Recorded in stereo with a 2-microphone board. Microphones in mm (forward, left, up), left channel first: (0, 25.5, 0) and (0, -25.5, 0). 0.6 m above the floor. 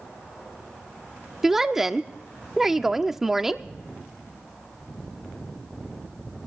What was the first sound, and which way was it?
A woman speaking, 10° right (ahead or behind).